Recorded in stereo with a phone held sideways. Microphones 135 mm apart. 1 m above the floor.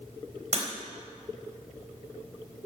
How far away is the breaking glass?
About 3.5 m.